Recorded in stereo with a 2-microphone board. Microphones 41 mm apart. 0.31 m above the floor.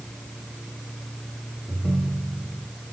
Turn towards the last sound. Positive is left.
turn(degrees=-40)  # may be behind; listen again after turning